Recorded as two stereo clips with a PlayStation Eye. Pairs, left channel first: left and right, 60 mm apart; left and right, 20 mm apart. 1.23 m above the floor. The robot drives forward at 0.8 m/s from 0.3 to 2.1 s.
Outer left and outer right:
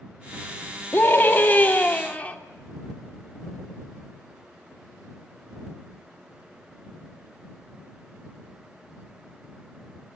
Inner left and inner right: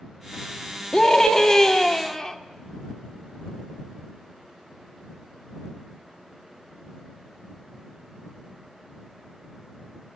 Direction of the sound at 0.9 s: 40° left (ahead or behind).